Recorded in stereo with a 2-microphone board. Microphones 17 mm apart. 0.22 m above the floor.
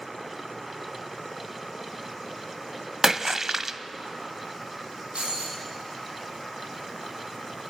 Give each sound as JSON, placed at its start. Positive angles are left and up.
{"t": 3.0, "sound": "a splash", "side_deg": -25, "distance_m": 0.6}
{"t": 5.2, "sound": "breaking glass", "side_deg": -80, "distance_m": 6.0}